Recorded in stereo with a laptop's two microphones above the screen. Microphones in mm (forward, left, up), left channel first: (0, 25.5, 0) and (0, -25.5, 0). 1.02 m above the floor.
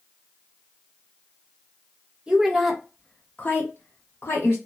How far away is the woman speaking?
About 0.7 m.